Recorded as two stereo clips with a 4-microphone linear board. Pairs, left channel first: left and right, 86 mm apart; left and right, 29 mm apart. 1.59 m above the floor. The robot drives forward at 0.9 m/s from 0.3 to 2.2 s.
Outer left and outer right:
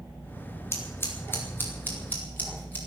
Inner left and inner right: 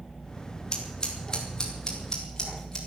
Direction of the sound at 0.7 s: 30° left (ahead or behind).